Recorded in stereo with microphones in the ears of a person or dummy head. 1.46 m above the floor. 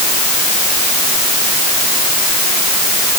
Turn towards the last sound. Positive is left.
No sound to turn to.